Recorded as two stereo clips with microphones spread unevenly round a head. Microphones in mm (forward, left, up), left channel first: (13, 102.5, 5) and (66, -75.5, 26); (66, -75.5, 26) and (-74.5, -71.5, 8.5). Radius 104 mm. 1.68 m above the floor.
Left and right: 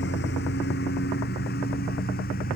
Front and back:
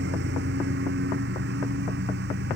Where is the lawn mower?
155° left; by 2.6 s 160° left.